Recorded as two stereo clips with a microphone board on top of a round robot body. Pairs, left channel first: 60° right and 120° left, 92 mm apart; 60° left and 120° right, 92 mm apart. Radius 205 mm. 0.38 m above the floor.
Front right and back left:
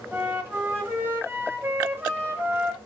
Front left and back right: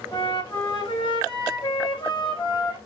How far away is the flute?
About 1.4 m.